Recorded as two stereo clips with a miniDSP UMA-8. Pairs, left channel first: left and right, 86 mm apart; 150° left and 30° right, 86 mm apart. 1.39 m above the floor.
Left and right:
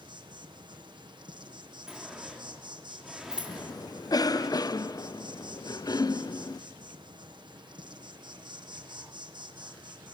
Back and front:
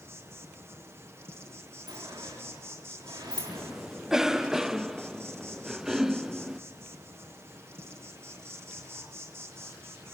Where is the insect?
85° right, 1.3 m.